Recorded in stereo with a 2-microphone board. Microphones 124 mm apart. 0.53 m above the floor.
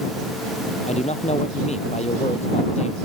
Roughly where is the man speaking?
Left.